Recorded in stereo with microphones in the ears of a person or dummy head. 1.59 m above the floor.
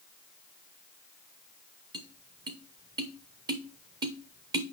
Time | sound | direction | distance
1.9 | tapping | 20° right (ahead or behind) | 0.6 m